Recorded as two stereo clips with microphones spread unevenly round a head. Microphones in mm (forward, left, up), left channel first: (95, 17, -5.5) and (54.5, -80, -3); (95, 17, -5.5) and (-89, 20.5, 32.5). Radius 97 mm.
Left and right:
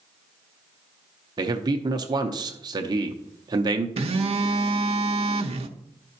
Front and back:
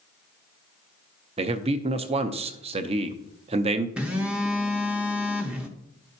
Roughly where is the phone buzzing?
Right.